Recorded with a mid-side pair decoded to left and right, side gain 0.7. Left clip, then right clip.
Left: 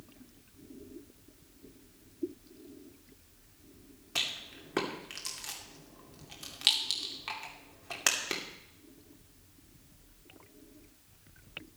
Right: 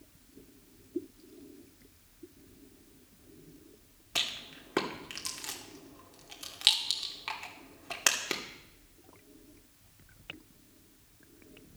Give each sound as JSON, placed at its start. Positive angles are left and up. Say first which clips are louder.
{"t": 4.2, "sound": "a rattle", "louder": "right 1 dB", "azimuth_deg": -10, "distance_m": 2.5}